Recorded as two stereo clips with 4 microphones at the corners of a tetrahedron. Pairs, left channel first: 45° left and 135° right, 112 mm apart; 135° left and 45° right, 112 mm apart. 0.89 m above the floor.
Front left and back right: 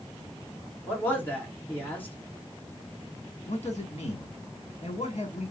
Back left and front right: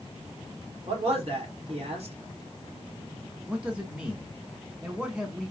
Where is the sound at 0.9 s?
30° right, 2.5 m.